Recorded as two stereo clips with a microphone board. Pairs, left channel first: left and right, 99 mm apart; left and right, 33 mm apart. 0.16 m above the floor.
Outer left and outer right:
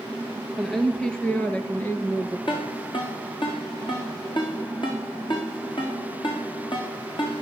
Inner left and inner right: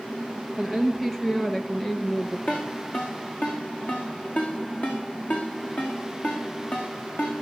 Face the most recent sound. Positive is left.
turn(degrees=55)  # may be behind; listen again after turning